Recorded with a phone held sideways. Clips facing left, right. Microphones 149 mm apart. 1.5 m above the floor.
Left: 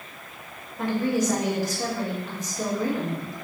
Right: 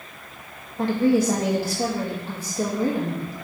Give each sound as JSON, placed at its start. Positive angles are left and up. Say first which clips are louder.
{"t": 0.8, "sound": "a woman speaking", "louder": "right 5 dB", "side_deg": -30, "distance_m": 2.0}